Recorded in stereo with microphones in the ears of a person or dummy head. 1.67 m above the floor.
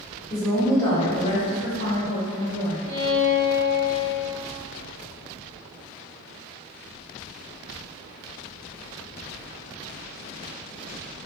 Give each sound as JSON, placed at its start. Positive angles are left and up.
{"t": 0.3, "sound": "a woman speaking", "side_deg": -10, "distance_m": 0.7}
{"t": 2.9, "sound": "a violin", "side_deg": 55, "distance_m": 1.0}